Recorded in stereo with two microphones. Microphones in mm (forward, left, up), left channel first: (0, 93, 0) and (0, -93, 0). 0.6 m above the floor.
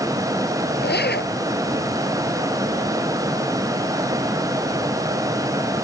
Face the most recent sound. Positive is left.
turn(degrees=70)  # may be behind; listen again after turning